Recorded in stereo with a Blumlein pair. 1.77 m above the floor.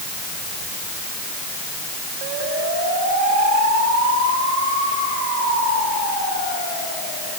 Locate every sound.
Only background noise.